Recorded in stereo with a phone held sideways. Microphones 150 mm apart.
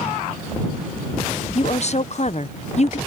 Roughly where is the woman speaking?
Left.